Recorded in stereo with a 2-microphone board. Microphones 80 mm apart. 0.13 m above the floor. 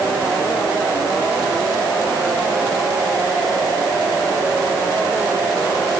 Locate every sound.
Only background noise.